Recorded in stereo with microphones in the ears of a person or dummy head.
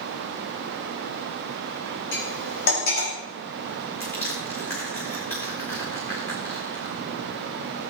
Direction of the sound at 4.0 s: 10° left (ahead or behind).